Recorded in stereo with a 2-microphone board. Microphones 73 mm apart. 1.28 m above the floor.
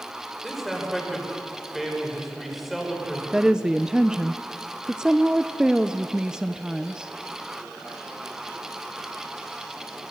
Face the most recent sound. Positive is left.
turn(degrees=-10)  # may be behind; listen again after turning